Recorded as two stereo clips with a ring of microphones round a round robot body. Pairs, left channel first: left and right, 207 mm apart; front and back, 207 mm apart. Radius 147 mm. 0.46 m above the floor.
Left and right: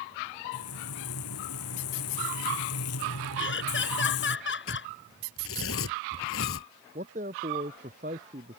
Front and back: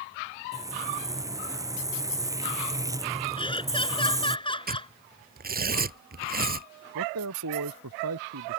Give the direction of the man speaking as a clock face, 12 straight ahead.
5 o'clock.